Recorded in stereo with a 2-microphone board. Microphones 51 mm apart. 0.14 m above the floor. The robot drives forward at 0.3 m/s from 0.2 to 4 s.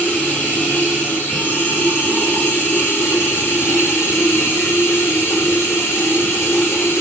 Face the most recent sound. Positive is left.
turn(degrees=60)  # may be behind; listen again after turning